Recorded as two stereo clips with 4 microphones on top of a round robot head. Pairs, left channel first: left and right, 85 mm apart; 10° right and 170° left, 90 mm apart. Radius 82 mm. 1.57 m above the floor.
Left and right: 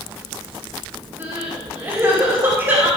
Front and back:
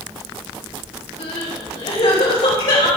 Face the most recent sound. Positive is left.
turn(degrees=-25)